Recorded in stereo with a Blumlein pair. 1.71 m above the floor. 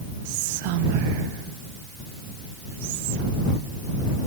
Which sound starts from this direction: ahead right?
Whispering, at 0.2 s.